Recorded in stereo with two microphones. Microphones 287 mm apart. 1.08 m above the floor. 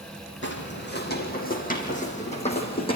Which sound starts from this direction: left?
Footsteps, at 0.4 s.